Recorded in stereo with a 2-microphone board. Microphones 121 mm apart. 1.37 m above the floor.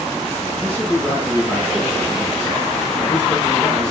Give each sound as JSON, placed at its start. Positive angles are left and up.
{"t": 0.6, "sound": "a man speaking", "side_deg": 10, "distance_m": 8.0}